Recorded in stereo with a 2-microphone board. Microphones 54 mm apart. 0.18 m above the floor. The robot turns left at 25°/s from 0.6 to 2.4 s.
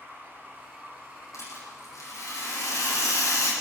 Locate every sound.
0.0 s running water: 165° left, 8.5 m; by 3.6 s 120° left, 8.5 m
1.3 s a rattle: 65° left (ahead or behind), 8.5 m; by 3.5 s 80° left, 8.5 m